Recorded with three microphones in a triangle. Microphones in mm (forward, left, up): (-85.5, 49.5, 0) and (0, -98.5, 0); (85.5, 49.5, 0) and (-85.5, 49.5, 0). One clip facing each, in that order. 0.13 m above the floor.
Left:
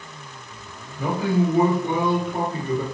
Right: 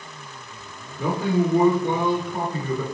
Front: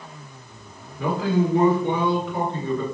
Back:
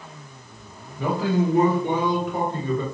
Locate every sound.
1.0 s a man speaking: 100° right, 1.9 m; by 2.8 s 140° left, 1.8 m